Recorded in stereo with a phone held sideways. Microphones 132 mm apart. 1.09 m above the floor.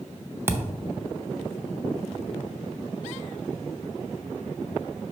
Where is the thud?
20° right (ahead or behind), 0.7 m.